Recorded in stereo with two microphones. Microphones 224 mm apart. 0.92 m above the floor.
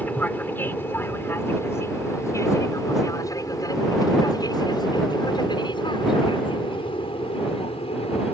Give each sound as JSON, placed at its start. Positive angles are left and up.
{"t": 0.0, "sound": "an aircraft", "side_deg": 10}